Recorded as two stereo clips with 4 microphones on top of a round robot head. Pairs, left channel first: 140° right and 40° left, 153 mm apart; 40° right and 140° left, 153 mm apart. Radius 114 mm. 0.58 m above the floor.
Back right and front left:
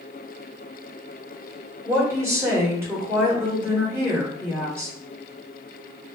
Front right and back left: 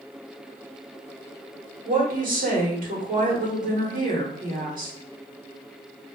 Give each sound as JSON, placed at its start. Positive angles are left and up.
{"t": 1.9, "sound": "a woman speaking", "azimuth_deg": 115, "distance_m": 1.7}